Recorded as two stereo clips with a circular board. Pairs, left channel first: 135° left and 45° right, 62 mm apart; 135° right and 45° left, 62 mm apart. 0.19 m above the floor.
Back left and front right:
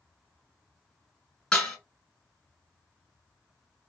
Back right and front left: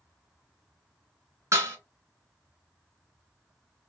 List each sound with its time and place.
1.5 s dishes clattering: 65° left, 1.4 m